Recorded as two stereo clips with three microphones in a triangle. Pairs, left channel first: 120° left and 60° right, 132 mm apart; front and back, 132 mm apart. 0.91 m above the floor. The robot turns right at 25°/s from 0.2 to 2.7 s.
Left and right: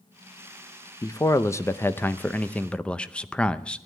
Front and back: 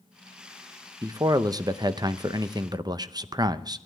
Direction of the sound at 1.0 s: 150° left.